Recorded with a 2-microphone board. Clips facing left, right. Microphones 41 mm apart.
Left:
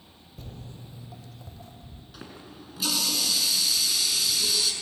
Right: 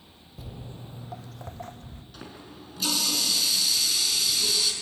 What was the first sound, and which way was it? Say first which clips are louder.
Footsteps: right 2 dB; 5° right (ahead or behind).